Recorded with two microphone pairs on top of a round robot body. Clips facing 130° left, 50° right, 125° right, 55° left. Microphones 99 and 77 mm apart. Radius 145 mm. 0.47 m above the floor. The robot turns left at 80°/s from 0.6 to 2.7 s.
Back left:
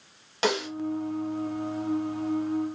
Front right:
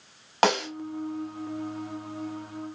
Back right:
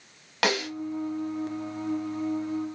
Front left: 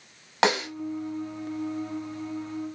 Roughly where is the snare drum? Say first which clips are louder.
Front right 4 dB, front left 3 dB; ahead.